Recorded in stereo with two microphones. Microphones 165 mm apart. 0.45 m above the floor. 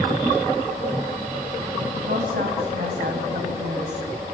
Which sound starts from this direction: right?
A woman speaking, at 2.1 s.